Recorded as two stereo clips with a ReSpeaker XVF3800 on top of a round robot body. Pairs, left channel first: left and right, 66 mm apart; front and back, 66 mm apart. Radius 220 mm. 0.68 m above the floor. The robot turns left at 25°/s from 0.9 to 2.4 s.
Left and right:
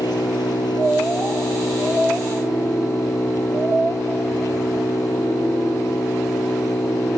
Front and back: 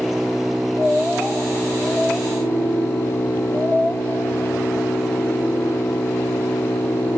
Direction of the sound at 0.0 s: 90° left.